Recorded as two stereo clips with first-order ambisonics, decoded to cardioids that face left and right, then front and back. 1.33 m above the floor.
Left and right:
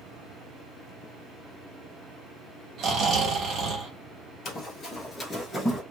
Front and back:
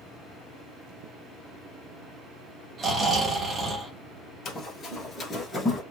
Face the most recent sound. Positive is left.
turn(degrees=40)